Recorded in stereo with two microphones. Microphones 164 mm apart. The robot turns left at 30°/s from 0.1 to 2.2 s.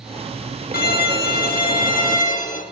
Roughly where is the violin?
Left.